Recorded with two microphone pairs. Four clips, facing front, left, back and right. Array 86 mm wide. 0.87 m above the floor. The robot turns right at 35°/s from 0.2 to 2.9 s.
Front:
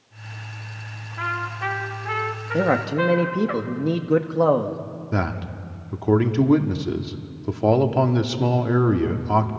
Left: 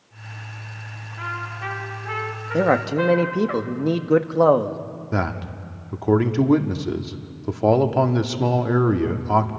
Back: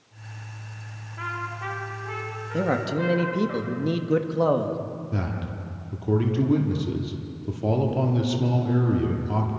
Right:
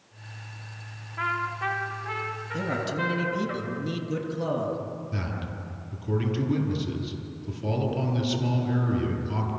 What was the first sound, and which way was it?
A trumpet, 45° right.